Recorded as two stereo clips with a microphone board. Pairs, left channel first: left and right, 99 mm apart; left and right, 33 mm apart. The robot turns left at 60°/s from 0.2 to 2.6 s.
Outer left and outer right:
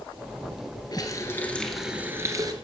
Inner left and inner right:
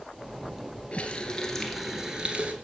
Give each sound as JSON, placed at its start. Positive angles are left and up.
{"t": 0.9, "sound": "a running tap", "azimuth_deg": 50, "distance_m": 1.8}